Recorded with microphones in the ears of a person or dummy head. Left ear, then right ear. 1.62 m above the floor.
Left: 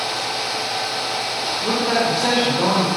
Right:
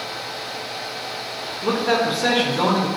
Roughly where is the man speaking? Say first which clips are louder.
Right 1 dB; right.